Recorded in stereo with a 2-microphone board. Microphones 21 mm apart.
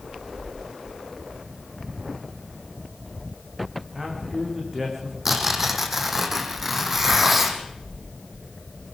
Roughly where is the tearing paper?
Centre.